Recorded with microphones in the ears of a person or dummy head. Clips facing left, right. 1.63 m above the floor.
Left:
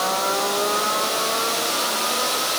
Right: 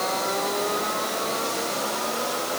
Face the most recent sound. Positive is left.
No sound to turn to.